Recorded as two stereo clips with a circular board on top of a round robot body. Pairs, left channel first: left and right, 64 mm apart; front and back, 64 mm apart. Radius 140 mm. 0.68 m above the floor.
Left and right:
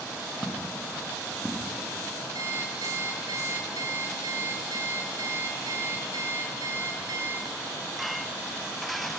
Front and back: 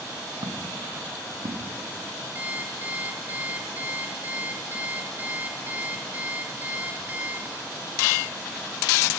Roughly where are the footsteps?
Behind.